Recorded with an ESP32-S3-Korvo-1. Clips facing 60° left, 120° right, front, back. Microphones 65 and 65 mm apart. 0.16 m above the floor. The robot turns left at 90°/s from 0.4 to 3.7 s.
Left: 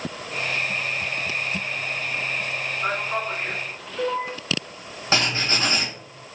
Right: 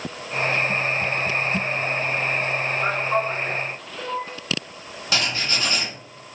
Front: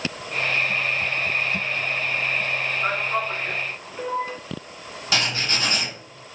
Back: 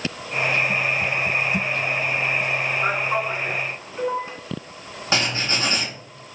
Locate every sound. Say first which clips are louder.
2.8 s a man speaking: right 3 dB, back 1 dB; 155° right, 1.2 m; by 4.3 s 125° left, 1.2 m
5.1 s writing: left 2 dB, back 1 dB; 120° left, 0.9 m